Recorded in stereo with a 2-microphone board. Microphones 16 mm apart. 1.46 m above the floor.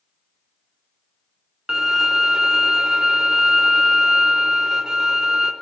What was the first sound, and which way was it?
A violin, 50° right (ahead or behind).